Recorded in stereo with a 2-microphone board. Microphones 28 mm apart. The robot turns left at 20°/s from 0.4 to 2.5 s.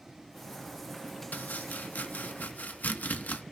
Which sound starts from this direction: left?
Chopping, at 1.3 s.